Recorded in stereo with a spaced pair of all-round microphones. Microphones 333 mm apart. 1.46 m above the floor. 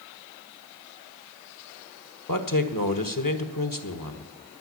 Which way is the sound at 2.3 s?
75° left (ahead or behind).